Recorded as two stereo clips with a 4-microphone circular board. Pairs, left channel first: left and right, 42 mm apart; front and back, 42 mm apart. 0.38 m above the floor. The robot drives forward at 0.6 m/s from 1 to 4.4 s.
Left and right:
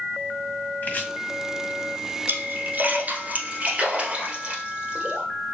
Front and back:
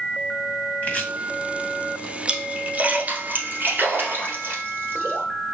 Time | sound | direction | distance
0.8 | chopping | 50° left | 2 m
2.3 | a splash | 115° right | 1.0 m